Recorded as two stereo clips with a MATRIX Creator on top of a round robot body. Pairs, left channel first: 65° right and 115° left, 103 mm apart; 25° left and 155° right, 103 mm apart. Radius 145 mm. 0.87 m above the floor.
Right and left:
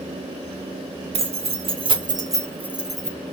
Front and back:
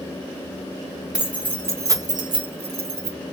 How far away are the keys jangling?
About 1.0 m.